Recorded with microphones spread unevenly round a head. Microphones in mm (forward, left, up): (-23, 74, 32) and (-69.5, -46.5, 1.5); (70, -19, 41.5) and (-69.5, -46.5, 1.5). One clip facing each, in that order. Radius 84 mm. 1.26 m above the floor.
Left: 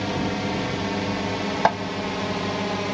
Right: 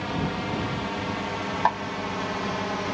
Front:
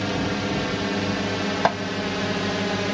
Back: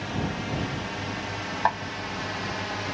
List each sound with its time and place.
0.0 s a drone: 10° left; by 2.9 s 5° right
1.6 s a snare drum: 35° left